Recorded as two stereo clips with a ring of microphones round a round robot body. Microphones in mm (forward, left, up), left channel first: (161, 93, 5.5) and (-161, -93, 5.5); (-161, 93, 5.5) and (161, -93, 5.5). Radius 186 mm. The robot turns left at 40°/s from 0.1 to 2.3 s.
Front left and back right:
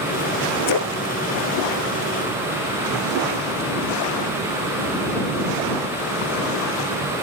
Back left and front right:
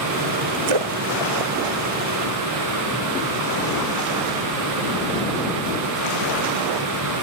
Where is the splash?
10° right; by 2.7 s 75° right.